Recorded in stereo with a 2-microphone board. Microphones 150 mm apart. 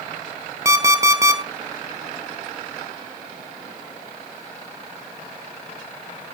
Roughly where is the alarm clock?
Right.